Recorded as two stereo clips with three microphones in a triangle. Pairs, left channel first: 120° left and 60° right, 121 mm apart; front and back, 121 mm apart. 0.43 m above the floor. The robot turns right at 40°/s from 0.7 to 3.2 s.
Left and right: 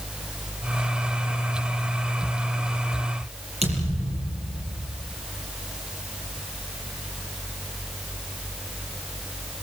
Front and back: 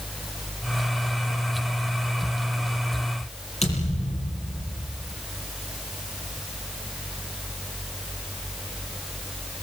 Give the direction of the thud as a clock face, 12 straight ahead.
1 o'clock.